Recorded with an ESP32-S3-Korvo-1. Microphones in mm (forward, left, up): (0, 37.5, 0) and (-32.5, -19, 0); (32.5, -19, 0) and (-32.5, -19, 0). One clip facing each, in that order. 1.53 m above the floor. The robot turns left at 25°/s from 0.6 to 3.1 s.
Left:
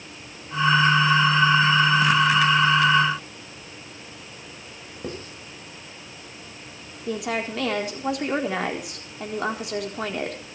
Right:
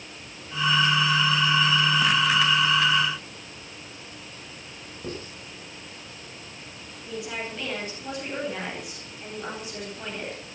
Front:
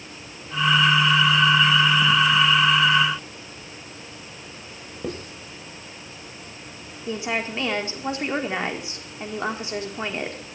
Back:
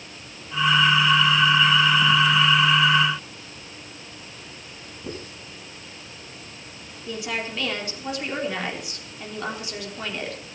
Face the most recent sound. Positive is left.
turn(degrees=60)